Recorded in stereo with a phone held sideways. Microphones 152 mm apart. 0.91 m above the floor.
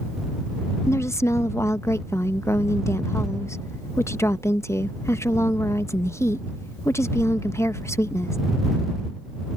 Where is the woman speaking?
20° left (ahead or behind).